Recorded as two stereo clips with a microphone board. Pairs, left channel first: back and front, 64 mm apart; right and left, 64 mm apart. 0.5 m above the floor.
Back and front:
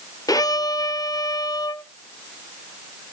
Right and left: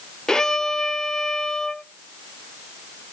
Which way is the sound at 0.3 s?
170° right.